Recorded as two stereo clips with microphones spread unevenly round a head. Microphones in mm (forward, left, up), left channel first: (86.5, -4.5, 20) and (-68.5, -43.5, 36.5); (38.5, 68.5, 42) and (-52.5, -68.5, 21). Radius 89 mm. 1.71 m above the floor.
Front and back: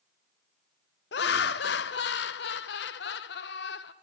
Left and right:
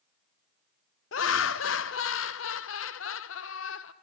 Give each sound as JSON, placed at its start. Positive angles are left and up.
{"t": 1.1, "sound": "laughter", "azimuth_deg": 45, "distance_m": 0.6}